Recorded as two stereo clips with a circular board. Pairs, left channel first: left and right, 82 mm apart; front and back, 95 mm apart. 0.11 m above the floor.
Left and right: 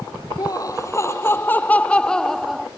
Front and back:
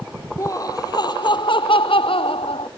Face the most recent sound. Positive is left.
turn(degrees=0)